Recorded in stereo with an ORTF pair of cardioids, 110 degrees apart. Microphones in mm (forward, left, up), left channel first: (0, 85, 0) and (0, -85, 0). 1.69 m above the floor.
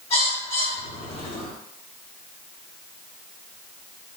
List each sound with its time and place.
0.1 s a bird: 40° left, 1.5 m